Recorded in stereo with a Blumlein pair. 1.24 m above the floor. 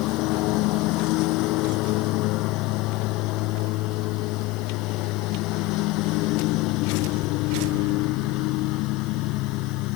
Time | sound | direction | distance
0.0 | a lawn mower | 40° left | ?